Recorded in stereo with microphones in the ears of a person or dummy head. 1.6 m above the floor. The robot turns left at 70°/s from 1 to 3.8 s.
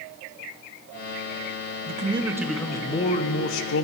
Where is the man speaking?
130° right, 0.8 m; by 3.8 s 95° left, 0.8 m.